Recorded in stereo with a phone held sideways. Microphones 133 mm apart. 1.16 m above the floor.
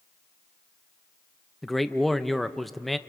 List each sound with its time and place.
1.6 s a man speaking: centre (ahead or behind), 0.6 m